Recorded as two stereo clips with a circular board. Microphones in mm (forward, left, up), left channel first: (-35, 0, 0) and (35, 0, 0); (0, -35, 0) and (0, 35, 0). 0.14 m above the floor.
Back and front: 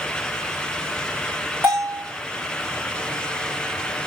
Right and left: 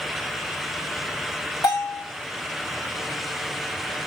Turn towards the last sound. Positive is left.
turn(degrees=-60)